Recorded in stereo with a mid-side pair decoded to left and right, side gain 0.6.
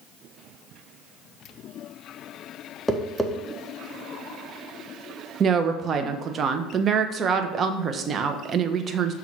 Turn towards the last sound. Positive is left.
turn(degrees=-40)